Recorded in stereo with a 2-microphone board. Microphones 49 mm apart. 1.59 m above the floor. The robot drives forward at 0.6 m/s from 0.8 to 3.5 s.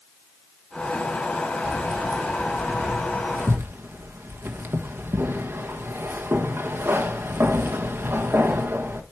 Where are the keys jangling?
30° right (ahead or behind), 2.5 m; by 9.0 s 55° right (ahead or behind), 1.5 m.